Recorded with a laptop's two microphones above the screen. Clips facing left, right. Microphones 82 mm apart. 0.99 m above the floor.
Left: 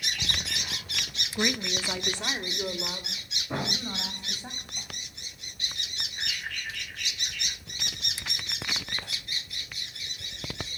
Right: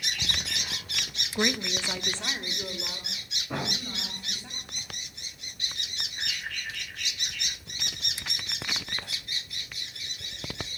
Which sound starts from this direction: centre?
A woman speaking, at 1.4 s.